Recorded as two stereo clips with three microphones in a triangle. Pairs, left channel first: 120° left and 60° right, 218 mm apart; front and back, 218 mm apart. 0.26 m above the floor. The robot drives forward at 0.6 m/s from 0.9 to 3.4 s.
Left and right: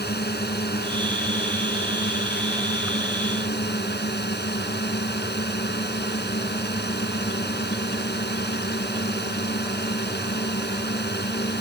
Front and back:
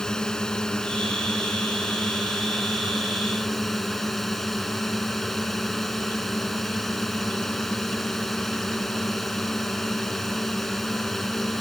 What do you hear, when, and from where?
0.0 s a drone: 85° left; by 11.6 s 90° left